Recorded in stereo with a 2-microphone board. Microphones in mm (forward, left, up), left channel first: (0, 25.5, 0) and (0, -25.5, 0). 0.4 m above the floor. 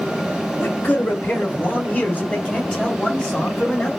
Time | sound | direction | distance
0.6 | a man speaking | 40° left (ahead or behind) | 1.8 m